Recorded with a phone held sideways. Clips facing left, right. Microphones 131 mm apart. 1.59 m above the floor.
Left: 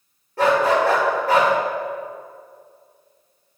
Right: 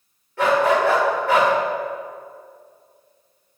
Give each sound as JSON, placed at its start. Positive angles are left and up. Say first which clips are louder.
{"t": 0.4, "sound": "a dog barking", "louder": "even", "side_deg": 40, "distance_m": 1.9}